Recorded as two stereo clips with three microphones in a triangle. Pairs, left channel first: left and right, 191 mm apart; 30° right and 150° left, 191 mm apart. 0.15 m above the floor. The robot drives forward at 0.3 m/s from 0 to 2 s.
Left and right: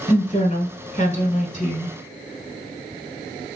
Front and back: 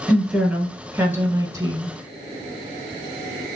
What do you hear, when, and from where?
0.1 s a woman speaking: 60° left, 1.3 m; by 1.9 s 100° left, 1.3 m